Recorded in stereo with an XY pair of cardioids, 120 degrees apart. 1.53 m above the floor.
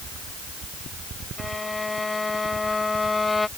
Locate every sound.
1.4 s a violin: 15° left